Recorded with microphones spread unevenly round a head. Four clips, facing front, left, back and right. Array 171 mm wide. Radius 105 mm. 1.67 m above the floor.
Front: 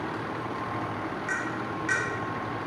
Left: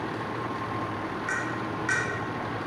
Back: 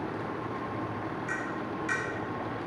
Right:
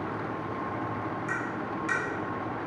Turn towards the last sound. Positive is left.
turn(degrees=-155)